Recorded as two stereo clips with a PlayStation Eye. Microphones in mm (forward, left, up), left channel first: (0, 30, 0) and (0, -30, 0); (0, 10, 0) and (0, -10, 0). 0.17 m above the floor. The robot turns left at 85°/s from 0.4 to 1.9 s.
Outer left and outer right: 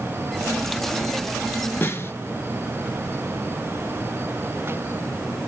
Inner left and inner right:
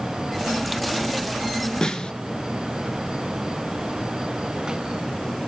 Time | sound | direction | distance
1.8 | a snare drum | 35° left (ahead or behind) | 1.1 m